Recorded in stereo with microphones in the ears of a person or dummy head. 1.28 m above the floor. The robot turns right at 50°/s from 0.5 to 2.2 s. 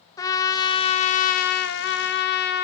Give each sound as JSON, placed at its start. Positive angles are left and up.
{"t": 0.2, "sound": "a trumpet", "azimuth_deg": 25, "distance_m": 0.7}